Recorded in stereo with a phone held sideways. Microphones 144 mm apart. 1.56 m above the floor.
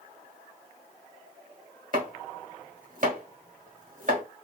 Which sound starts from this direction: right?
Chopping, at 1.9 s.